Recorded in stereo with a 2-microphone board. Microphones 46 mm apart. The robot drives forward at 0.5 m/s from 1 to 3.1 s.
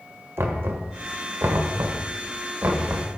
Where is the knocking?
60° right (ahead or behind), 1.2 m; by 3.2 s 45° right (ahead or behind), 1.4 m.